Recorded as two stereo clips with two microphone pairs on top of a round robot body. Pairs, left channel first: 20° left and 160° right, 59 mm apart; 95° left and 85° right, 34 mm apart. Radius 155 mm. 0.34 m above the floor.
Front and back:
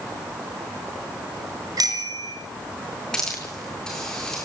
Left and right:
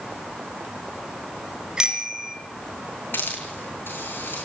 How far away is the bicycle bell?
About 5 m.